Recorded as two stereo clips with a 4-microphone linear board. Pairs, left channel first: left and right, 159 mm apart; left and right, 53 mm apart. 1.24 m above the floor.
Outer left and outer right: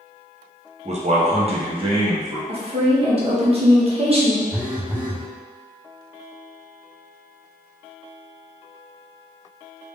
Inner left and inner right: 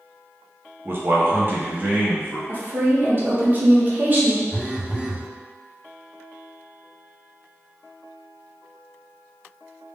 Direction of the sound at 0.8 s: 45° right (ahead or behind).